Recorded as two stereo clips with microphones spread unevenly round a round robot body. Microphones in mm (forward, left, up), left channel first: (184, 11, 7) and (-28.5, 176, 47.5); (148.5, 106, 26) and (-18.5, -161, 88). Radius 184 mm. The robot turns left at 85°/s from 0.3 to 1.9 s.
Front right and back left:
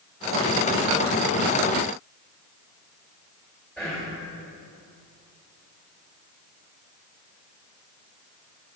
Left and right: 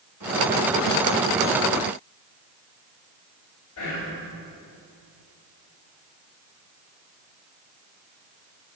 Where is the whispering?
45° left, 2.5 m.